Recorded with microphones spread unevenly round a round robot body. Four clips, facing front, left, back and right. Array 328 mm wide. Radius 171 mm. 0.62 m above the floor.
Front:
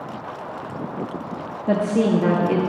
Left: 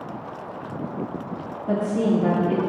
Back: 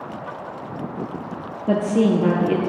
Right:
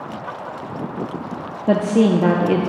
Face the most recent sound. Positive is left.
turn(degrees=-90)